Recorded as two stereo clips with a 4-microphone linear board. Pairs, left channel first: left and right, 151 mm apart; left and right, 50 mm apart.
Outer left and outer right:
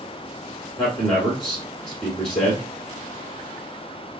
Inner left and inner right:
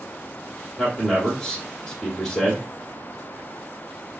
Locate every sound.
0.8 s a man speaking: 5° left (ahead or behind), 2.5 m